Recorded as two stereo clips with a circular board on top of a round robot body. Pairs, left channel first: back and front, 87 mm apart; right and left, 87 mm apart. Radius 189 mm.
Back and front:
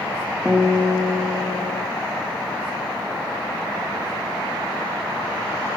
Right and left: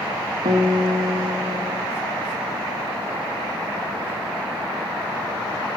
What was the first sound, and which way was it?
A guitar, 85° left.